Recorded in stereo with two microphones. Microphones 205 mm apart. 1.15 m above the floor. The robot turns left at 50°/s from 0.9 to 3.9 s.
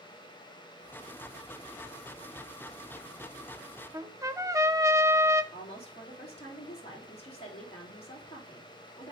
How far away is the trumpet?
About 0.5 m.